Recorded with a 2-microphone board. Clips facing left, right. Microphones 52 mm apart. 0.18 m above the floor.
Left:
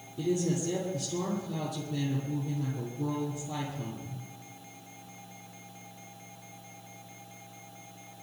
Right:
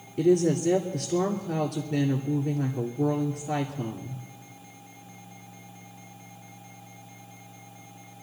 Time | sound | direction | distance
0.2 | a woman speaking | 65° right (ahead or behind) | 2.5 m